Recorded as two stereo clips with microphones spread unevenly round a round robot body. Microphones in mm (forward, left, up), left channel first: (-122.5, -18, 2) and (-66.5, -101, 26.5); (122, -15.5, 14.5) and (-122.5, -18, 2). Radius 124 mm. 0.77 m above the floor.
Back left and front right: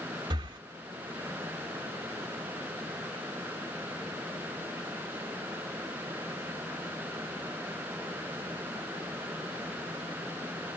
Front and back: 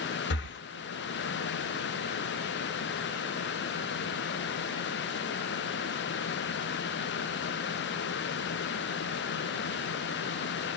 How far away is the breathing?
About 0.8 m.